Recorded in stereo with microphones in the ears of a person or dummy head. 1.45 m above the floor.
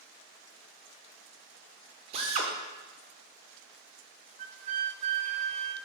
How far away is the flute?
About 0.7 m.